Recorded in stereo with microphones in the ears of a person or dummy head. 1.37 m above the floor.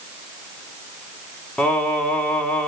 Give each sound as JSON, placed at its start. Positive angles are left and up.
{"t": 1.6, "sound": "singing", "side_deg": 0, "distance_m": 1.1}